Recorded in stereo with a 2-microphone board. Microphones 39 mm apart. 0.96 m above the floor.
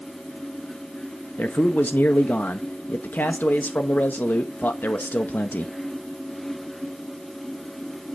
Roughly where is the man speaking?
Left.